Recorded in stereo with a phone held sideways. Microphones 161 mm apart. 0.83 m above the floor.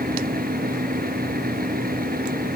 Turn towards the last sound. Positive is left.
turn(degrees=-70)  # may be behind; listen again after turning